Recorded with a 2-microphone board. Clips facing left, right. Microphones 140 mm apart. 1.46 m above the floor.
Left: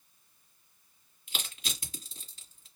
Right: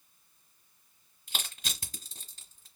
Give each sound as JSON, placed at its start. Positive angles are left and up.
{"t": 1.3, "sound": "crushing", "side_deg": -40, "distance_m": 1.7}